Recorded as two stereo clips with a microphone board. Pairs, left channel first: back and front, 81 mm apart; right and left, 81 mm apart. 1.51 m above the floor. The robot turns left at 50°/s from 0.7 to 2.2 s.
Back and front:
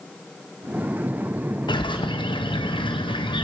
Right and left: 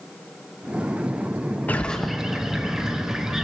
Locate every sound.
1.7 s a bird: 160° right, 0.7 m; by 3.5 s 175° left, 0.7 m